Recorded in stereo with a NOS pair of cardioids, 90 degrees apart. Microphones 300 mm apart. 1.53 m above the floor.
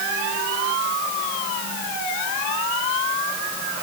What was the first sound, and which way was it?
Only background noise.